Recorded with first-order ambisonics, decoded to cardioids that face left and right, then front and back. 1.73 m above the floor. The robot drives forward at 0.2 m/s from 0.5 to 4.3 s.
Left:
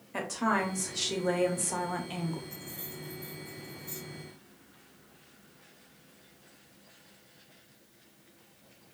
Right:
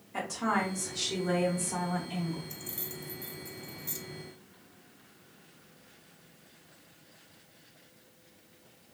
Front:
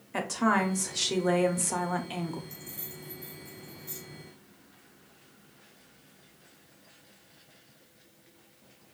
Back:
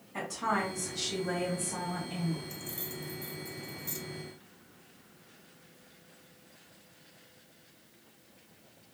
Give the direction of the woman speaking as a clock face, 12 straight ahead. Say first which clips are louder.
Left 1 dB, front 5 dB; 11 o'clock.